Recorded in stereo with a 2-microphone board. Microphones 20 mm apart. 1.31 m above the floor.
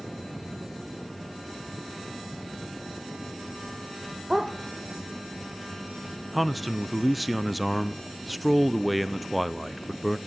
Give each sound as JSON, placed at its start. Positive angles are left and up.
{"t": 4.3, "sound": "a dog barking", "side_deg": -15, "distance_m": 1.4}
{"t": 6.3, "sound": "a man speaking", "side_deg": -5, "distance_m": 0.6}